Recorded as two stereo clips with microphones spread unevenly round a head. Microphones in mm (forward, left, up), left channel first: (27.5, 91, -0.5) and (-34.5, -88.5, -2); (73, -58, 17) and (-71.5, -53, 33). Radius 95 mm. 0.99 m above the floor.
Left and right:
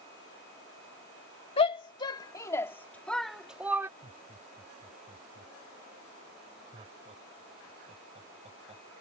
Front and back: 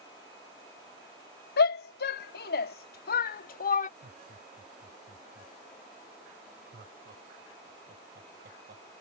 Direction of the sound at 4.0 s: 170° right.